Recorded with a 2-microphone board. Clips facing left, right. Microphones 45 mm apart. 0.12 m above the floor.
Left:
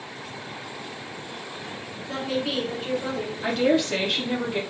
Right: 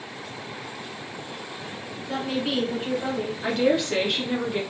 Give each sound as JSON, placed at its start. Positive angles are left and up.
{"t": 2.1, "sound": "a woman speaking", "side_deg": -10, "distance_m": 1.1}
{"t": 3.4, "sound": "a woman speaking", "side_deg": 0, "distance_m": 1.3}